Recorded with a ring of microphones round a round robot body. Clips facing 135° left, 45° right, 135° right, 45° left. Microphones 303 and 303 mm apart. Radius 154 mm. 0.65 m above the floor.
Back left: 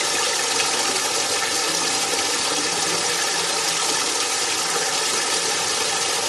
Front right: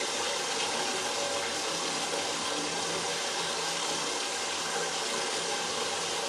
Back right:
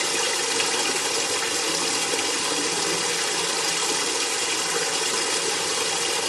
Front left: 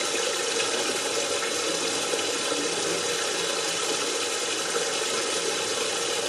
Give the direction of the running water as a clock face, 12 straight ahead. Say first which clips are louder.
Back left 7 dB, even; 7 o'clock.